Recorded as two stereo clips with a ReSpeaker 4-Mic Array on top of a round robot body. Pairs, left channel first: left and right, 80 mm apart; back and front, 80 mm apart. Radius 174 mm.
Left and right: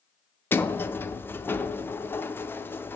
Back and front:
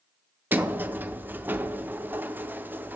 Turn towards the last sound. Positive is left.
turn(degrees=50)